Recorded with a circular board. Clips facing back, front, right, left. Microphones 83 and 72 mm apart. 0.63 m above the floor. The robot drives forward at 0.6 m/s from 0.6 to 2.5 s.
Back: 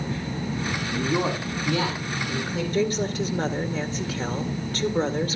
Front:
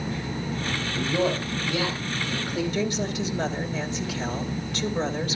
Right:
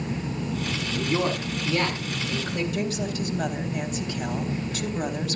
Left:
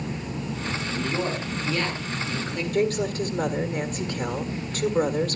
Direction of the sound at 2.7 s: 130° left.